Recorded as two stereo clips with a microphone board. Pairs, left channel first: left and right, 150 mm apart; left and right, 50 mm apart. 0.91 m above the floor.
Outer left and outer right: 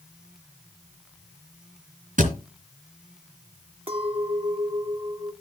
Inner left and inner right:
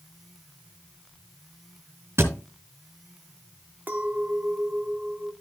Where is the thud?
60° right (ahead or behind), 3 m.